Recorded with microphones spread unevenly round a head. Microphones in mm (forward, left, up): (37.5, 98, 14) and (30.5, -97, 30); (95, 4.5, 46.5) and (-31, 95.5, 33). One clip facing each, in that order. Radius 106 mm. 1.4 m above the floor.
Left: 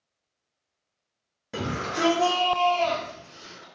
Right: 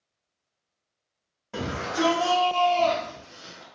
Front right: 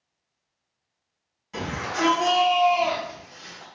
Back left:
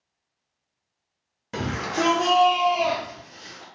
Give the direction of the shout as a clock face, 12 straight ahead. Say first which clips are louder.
Right 1 dB, back left 3 dB; 7 o'clock.